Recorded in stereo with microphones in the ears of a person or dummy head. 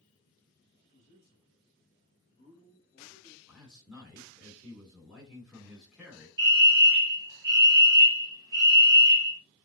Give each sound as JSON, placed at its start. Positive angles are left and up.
{"t": 0.8, "sound": "a man speaking", "side_deg": 55, "distance_m": 2.0}
{"t": 3.5, "sound": "a man speaking", "side_deg": 0, "distance_m": 3.0}
{"t": 6.4, "sound": "a fire alarm", "side_deg": -20, "distance_m": 1.4}